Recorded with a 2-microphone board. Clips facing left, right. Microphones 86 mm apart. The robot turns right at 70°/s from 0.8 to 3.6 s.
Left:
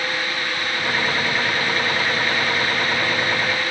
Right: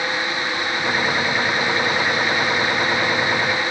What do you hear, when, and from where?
Only background noise.